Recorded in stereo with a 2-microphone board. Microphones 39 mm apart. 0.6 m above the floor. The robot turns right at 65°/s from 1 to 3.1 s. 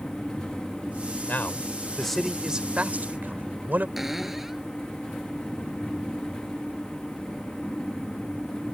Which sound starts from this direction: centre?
A cupboard door, at 4.0 s.